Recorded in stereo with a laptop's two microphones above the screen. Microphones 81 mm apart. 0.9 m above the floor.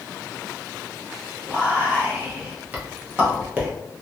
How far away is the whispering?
About 0.7 m.